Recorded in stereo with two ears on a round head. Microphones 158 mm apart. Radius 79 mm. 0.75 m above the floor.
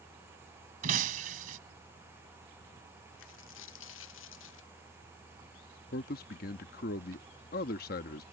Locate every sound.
0.8 s breaking glass: 50° right (ahead or behind)
3.2 s a dropped coin: 85° left
5.9 s a man speaking: 55° left (ahead or behind)